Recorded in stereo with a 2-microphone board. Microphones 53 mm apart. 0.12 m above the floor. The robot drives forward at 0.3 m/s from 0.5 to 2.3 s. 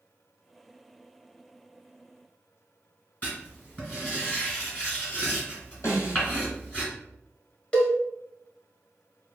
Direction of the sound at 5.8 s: 60° left (ahead or behind).